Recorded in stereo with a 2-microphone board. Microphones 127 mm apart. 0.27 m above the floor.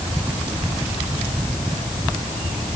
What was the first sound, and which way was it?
Only background noise.